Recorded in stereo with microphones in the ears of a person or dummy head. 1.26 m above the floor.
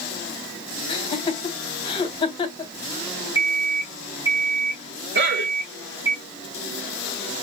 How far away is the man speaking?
About 1.8 m.